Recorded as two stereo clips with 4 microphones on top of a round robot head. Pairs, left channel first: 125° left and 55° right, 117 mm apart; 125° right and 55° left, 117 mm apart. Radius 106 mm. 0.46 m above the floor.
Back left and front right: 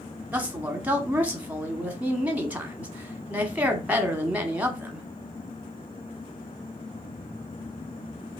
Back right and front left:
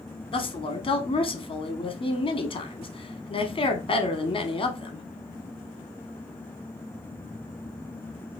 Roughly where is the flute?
I don't hear a flute.